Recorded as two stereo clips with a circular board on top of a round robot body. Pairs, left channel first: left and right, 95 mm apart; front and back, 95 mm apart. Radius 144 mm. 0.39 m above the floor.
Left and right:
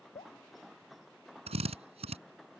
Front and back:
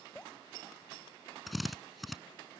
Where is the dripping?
85° left.